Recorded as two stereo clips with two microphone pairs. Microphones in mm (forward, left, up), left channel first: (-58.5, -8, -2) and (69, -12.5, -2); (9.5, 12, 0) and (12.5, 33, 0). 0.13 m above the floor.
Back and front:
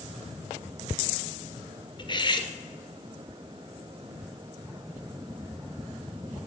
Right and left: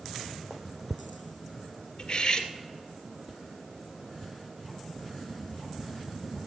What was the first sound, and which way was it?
Cutlery clinking, 145° right.